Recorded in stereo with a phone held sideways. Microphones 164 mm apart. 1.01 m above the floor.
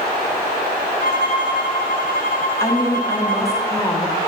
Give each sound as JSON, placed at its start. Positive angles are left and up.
{"t": 1.0, "sound": "a violin", "side_deg": 60, "distance_m": 1.5}
{"t": 2.6, "sound": "a woman speaking", "side_deg": 20, "distance_m": 2.0}